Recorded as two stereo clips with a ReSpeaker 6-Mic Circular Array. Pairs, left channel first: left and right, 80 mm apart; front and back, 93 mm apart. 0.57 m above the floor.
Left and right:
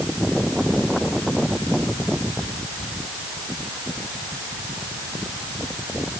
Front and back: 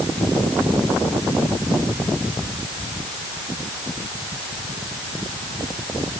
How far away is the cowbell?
No cowbell in this recording.